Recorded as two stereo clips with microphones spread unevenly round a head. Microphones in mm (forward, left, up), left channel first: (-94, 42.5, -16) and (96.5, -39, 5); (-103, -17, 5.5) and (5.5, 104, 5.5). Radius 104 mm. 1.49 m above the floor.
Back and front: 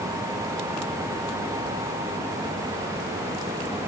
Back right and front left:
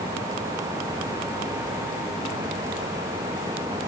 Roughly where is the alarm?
I don't hear an alarm.